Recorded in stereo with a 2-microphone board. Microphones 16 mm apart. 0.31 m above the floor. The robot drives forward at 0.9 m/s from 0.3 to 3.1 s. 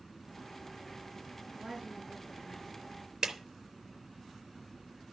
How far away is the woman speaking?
About 6 m.